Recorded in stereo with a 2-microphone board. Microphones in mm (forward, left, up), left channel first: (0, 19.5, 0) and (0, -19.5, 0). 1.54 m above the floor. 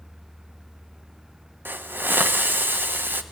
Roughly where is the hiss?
Right.